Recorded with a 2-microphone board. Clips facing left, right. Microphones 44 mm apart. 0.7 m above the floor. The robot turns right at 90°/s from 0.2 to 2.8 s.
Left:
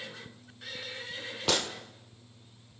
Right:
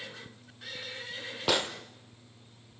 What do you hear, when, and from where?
1.5 s a gunshot: 10° right (ahead or behind), 1.1 m; by 1.7 s 30° right (ahead or behind), 1.1 m